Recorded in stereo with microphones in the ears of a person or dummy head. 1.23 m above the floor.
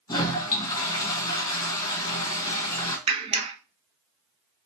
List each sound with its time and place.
0.1 s a toilet flushing: 15° left (ahead or behind), 1.3 m
3.1 s a clap: 35° right (ahead or behind), 0.6 m